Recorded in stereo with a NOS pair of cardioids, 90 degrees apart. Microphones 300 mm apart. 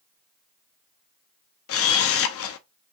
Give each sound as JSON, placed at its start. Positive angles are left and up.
{"t": 1.7, "sound": "a camera shutter", "azimuth_deg": 55, "distance_m": 0.7}